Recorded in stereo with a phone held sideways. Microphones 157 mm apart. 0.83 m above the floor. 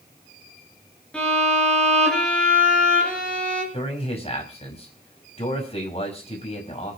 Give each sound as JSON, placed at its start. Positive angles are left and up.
{"t": 1.1, "sound": "a violin", "side_deg": 5, "distance_m": 7.5}
{"t": 3.7, "sound": "a man speaking", "side_deg": 35, "distance_m": 6.0}